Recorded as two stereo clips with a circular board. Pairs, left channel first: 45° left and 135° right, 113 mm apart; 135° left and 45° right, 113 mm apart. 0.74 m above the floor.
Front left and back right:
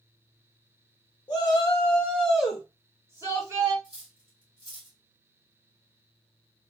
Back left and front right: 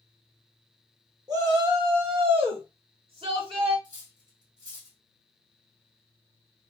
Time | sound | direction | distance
1.3 | a shout | 5° left | 1.2 m
3.8 | cutlery clinking | 100° right | 1.6 m